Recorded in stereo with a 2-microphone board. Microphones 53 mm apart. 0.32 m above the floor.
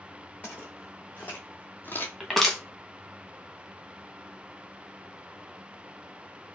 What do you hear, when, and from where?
0.4 s footsteps: 35° left (ahead or behind), 1.8 m; by 2.1 s 45° left (ahead or behind), 0.7 m
2.2 s crushing: 5° left (ahead or behind), 0.9 m